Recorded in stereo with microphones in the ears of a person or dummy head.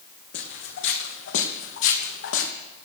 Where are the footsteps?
55° left (ahead or behind), 3 m; by 2.5 s 70° left (ahead or behind), 3.5 m.